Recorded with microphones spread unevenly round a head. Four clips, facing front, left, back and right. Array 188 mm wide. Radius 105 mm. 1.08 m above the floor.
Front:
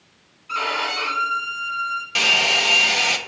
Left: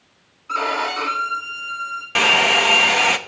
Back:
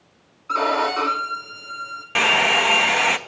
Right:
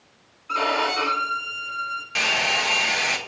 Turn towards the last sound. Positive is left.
turn(degrees=115)